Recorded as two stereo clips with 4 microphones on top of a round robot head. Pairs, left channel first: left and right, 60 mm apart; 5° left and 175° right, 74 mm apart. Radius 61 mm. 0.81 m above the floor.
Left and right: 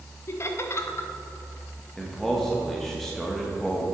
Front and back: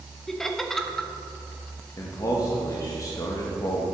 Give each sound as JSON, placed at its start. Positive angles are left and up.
{"t": 0.3, "sound": "laughter", "azimuth_deg": 90, "distance_m": 1.0}
{"t": 2.0, "sound": "a man speaking", "azimuth_deg": 10, "distance_m": 1.1}